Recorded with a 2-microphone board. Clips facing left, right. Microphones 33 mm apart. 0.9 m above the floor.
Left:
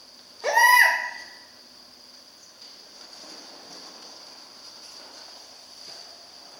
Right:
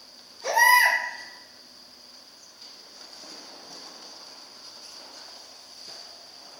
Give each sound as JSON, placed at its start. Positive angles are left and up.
{"t": 0.4, "sound": "a baby crying", "side_deg": 60, "distance_m": 0.9}